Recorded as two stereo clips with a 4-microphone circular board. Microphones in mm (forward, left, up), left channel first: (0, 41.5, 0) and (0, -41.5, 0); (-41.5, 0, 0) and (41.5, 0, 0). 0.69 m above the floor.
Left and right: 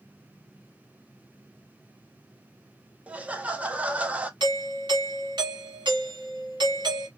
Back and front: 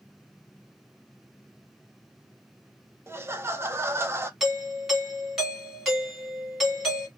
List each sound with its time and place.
3.1 s laughter: 30° right, 0.5 m
4.4 s a doorbell: 85° right, 2 m